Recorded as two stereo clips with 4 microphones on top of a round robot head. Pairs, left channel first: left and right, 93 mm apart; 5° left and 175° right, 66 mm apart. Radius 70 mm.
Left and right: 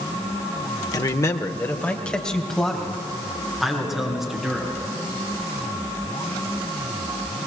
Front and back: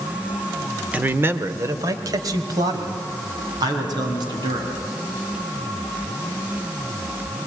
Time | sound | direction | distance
0.9 | a man speaking | 125° left | 1.3 m